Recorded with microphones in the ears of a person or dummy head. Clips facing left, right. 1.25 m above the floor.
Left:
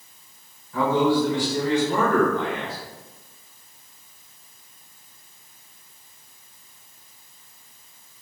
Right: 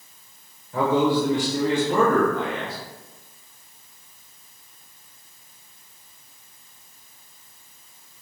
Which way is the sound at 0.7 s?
40° right (ahead or behind).